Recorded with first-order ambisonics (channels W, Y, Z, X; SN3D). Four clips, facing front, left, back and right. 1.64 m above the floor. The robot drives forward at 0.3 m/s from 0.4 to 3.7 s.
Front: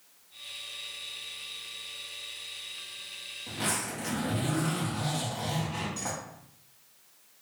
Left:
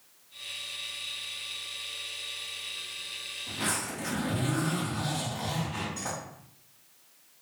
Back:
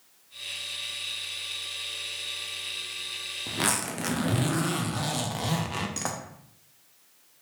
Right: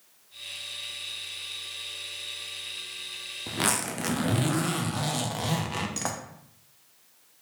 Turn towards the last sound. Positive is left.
turn(degrees=-130)